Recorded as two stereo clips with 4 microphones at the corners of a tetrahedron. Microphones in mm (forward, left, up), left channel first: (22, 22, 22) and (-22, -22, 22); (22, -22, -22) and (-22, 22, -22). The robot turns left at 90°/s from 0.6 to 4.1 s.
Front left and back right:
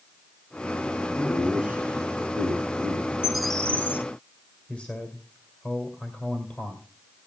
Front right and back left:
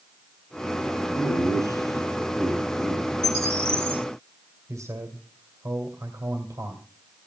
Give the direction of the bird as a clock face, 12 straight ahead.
7 o'clock.